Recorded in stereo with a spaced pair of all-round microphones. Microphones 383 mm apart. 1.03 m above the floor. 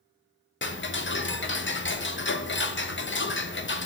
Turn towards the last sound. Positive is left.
turn(degrees=30)  # may be behind; listen again after turning